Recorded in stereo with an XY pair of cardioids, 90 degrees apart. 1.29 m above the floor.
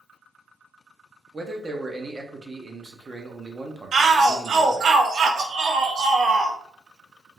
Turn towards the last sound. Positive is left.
turn(degrees=-55)